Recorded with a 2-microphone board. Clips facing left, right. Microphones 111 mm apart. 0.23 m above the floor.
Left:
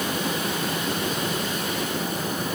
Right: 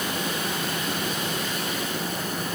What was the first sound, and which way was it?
Only background noise.